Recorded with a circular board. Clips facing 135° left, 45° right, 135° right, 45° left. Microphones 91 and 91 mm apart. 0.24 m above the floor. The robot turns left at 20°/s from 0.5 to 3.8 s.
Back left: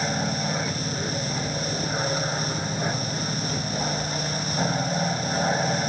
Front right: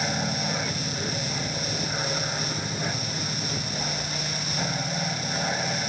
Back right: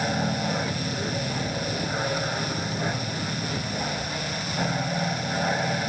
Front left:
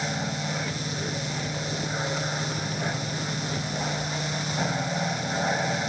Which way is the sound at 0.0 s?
155° right.